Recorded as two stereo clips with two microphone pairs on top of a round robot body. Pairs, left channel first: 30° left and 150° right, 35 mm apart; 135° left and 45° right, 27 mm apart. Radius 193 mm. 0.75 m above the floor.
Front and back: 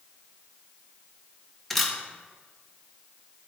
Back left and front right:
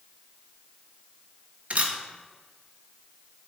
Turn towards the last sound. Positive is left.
turn(degrees=-55)